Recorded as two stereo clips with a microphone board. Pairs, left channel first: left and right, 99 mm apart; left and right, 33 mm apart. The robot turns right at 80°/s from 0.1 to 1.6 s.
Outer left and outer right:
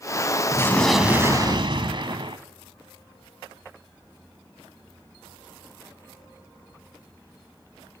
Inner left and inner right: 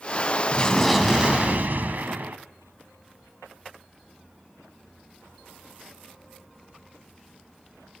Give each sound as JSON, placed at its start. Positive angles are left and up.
{"t": 0.5, "sound": "an explosion", "azimuth_deg": 150, "distance_m": 1.6}